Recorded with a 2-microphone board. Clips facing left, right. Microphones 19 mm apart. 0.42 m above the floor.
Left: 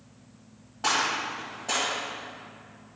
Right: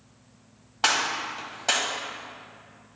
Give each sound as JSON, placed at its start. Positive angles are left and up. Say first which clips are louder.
{"t": 0.8, "sound": "a gunshot", "louder": "right 1 dB", "side_deg": -70, "distance_m": 1.5}